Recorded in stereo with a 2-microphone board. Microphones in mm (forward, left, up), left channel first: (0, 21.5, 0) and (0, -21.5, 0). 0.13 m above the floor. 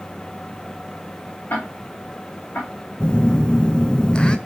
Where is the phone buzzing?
20° left (ahead or behind), 0.6 m.